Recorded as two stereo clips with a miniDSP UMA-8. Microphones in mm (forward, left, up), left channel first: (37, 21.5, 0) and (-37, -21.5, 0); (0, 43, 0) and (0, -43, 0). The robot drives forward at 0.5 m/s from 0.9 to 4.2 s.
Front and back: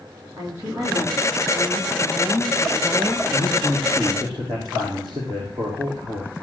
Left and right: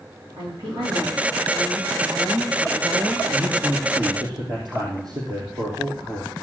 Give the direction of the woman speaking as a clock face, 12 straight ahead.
3 o'clock.